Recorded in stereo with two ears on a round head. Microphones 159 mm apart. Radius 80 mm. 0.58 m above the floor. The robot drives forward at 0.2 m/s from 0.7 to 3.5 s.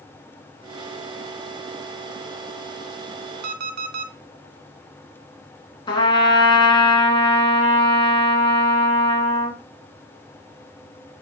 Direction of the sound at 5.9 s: 30° left (ahead or behind).